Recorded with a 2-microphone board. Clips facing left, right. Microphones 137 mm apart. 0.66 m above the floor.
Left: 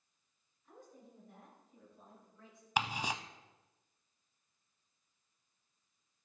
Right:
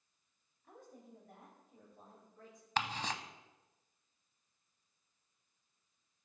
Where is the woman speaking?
75° right (ahead or behind), 4 m; by 2.7 s 50° right (ahead or behind), 3 m.